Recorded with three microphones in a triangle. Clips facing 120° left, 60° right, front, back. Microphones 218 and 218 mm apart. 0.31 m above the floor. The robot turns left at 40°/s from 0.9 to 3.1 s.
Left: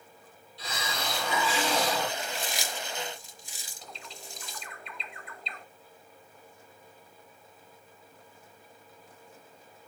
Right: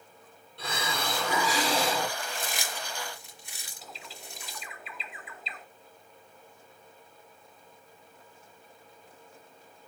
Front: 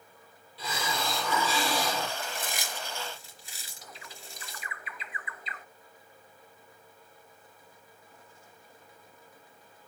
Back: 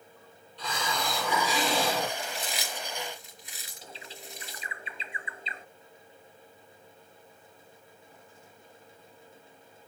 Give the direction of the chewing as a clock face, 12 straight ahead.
1 o'clock.